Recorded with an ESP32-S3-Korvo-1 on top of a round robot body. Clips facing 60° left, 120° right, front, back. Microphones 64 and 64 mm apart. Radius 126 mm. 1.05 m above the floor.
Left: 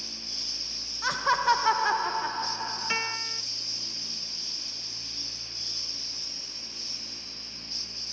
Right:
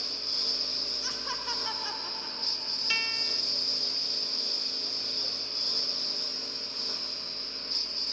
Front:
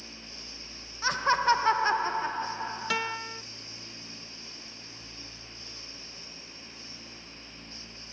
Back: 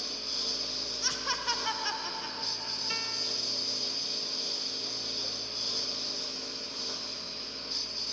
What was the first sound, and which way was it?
A lawn mower, 155° right.